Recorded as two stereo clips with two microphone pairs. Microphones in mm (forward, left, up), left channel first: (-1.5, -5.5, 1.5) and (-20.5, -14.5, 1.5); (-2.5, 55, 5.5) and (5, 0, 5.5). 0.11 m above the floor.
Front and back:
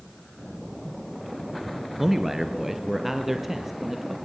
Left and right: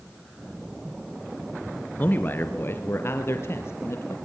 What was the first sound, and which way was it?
A man speaking, 135° left.